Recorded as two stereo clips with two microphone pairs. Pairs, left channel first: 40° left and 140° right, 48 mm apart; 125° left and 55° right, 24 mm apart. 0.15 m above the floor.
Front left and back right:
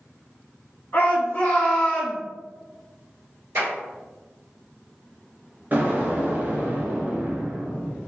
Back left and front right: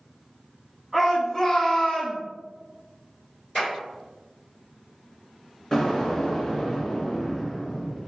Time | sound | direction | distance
0.9 | a shout | 40° left | 1.3 m
3.5 | a clap | 160° right | 1.6 m
5.7 | an explosion | 170° right | 0.8 m